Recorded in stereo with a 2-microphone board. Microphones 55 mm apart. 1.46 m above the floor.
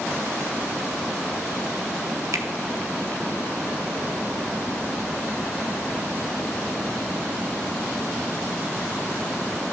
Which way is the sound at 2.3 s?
80° right.